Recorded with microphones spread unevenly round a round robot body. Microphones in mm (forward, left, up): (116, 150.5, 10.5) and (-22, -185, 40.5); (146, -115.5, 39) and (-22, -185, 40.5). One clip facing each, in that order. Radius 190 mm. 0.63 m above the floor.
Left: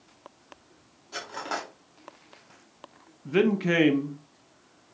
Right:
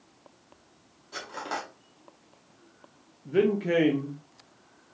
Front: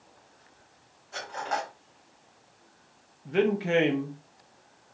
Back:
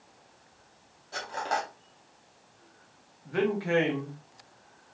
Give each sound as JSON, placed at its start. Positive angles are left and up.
{"t": 1.1, "sound": "cutlery clinking", "azimuth_deg": 150, "distance_m": 0.7}
{"t": 3.2, "sound": "a man speaking", "azimuth_deg": 65, "distance_m": 0.6}